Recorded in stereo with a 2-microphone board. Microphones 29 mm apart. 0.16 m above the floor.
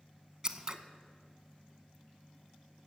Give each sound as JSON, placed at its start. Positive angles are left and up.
{"t": 0.4, "sound": "scissors", "side_deg": -25, "distance_m": 0.8}